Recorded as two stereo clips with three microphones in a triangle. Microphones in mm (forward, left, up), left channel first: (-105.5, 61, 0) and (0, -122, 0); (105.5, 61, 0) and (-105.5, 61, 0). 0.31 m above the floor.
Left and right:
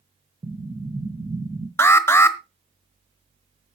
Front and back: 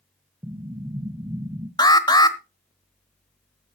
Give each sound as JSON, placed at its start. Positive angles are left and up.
{"t": 0.4, "sound": "an explosion", "azimuth_deg": -120, "distance_m": 0.8}
{"t": 1.8, "sound": "an alarm", "azimuth_deg": 50, "distance_m": 1.2}